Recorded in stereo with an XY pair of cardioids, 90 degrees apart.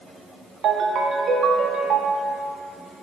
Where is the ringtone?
70° right, 0.9 m.